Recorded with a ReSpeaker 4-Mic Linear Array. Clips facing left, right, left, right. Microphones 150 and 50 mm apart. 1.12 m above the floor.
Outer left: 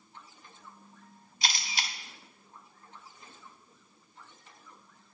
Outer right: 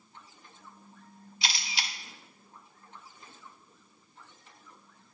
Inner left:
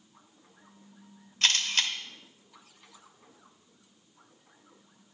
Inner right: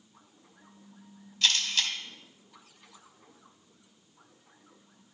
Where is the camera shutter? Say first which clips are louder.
Outer left 1 dB, inner left 1 dB; 45° left (ahead or behind), 1.0 m.